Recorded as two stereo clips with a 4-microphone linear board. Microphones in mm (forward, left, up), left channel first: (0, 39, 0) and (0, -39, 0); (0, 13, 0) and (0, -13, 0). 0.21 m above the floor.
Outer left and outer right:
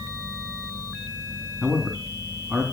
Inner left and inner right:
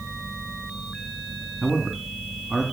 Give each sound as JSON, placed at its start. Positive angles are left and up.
{"t": 1.6, "sound": "a man speaking", "side_deg": -10, "distance_m": 2.5}